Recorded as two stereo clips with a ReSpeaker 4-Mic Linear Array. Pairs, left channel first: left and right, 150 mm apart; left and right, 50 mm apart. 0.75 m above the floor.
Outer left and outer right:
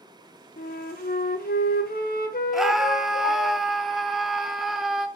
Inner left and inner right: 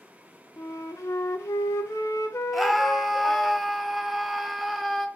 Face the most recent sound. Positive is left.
turn(degrees=0)  # may be behind; listen again after turning